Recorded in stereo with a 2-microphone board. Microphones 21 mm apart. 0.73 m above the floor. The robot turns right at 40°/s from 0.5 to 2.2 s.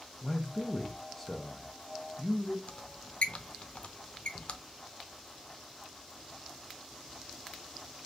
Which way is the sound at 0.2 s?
15° left (ahead or behind).